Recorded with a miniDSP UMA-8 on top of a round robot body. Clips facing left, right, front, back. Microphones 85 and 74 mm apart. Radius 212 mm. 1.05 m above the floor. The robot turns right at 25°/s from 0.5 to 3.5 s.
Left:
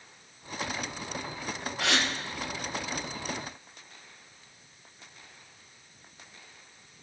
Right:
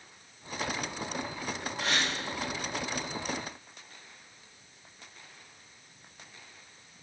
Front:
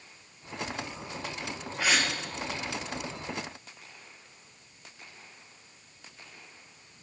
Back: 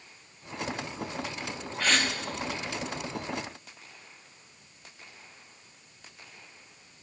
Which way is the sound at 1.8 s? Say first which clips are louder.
Left 3 dB, even; 80° left.